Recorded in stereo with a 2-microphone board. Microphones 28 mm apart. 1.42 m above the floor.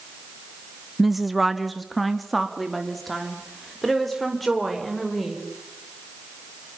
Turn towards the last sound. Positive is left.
turn(degrees=5)  # may be behind; listen again after turning